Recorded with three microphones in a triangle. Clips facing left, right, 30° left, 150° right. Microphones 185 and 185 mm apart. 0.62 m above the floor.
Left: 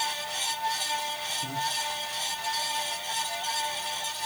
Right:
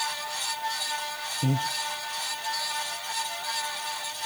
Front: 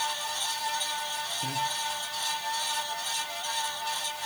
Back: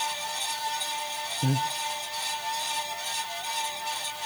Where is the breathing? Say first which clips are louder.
Right 9 dB, back 7 dB; 105° right, 0.6 m.